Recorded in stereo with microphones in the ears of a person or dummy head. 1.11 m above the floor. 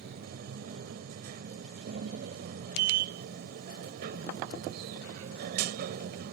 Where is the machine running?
60° right (ahead or behind).